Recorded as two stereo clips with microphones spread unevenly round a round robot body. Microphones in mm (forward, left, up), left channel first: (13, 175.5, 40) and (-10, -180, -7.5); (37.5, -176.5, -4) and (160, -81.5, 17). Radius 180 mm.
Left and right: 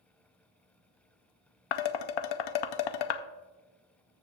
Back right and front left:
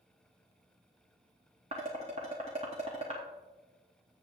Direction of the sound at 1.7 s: 105° left.